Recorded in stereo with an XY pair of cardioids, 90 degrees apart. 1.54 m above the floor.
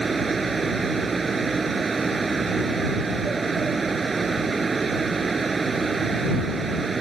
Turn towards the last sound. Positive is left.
turn(degrees=-35)